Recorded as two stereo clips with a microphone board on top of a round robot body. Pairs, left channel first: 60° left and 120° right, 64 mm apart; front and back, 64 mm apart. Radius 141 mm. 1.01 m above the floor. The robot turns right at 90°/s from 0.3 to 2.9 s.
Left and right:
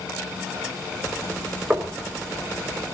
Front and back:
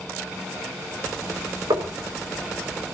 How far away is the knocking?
About 4.5 m.